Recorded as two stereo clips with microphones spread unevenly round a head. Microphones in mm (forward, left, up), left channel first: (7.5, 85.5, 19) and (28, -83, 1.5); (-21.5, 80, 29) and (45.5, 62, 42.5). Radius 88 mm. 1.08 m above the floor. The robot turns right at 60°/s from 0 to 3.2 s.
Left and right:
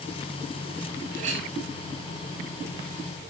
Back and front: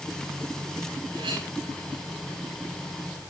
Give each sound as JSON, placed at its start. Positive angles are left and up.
{"t": 1.1, "sound": "a clink", "azimuth_deg": -40, "distance_m": 6.5}